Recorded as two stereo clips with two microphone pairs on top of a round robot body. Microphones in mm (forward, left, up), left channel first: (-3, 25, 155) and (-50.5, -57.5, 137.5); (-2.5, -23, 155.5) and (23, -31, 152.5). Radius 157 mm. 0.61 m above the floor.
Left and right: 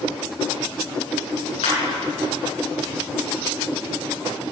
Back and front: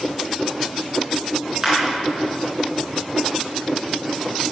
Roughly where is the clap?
Ahead left.